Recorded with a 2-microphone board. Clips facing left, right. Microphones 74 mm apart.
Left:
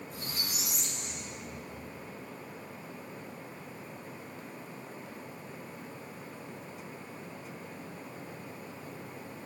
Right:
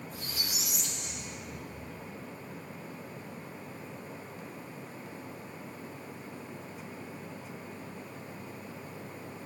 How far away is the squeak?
About 6 m.